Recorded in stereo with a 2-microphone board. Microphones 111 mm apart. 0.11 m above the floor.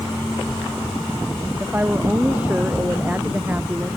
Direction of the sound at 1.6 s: 15° right (ahead or behind).